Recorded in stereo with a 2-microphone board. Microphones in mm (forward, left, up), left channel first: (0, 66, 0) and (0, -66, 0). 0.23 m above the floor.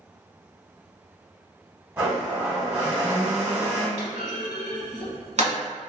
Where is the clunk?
60° right (ahead or behind), 1.0 m.